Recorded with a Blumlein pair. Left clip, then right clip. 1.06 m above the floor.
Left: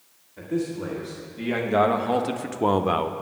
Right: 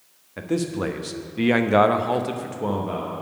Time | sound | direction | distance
0.4 | a man speaking | 55° right | 1.2 m